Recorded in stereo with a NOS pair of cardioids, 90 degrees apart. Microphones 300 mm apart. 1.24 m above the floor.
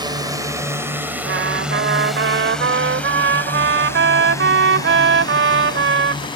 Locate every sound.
0.0 s a drone: 15° right; by 6.4 s 15° left
1.2 s a trumpet: 40° right